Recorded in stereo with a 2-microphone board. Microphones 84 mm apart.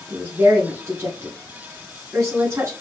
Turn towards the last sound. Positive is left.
turn(degrees=-30)  # may be behind; listen again after turning